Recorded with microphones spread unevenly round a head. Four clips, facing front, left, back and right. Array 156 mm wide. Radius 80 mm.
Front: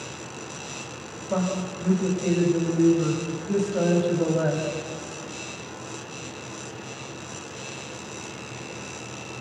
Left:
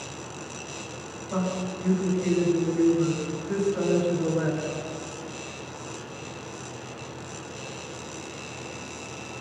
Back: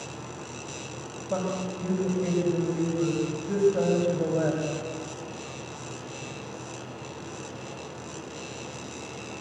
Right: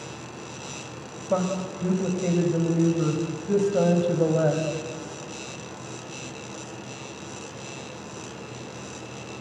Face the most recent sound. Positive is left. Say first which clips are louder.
# right 4 dB, front 3 dB
turn(degrees=-85)